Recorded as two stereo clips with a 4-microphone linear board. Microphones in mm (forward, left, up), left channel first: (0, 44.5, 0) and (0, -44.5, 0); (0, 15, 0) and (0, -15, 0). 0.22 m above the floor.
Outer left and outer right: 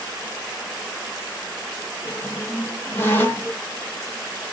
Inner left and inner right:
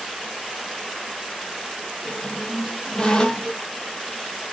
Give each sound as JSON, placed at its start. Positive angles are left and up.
{"t": 2.0, "sound": "a squeak", "side_deg": 25, "distance_m": 0.9}